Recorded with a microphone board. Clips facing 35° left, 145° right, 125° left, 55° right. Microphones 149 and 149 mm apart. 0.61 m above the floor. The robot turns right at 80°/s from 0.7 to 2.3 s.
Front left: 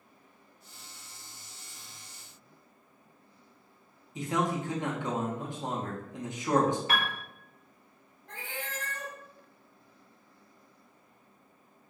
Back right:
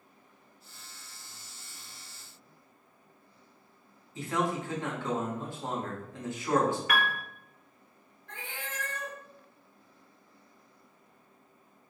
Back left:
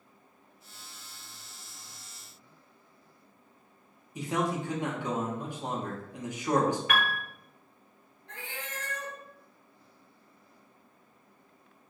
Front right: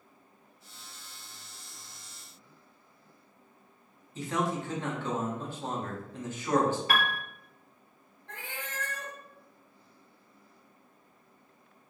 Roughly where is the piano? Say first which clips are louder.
Back right 2 dB, even; ahead.